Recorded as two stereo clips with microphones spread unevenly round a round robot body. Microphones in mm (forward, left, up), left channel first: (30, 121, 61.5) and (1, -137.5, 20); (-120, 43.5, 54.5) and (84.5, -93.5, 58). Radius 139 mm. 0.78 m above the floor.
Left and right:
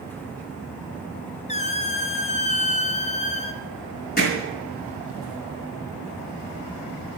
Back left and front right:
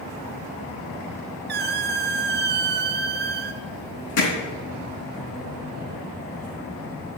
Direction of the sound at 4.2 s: 140° left.